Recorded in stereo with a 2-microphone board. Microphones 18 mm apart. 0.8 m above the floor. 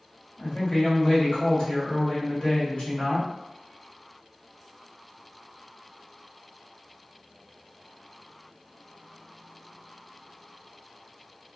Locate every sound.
0.4 s a woman speaking: 55° left (ahead or behind), 1.6 m